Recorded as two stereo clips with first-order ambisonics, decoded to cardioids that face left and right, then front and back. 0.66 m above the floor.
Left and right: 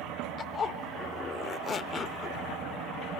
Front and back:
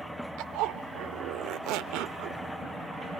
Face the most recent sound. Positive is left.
turn(degrees=155)